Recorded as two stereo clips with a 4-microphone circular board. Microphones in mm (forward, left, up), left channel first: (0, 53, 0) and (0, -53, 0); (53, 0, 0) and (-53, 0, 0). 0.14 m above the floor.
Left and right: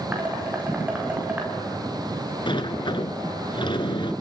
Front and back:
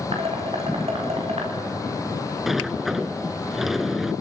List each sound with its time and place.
0.1 s dishes clattering: 165° right, 7.5 m
2.5 s a sliding door: 95° left, 0.9 m